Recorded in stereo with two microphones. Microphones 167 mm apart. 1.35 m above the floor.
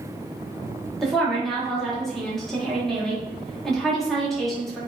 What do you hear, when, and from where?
1.0 s a woman speaking: centre (ahead or behind), 0.9 m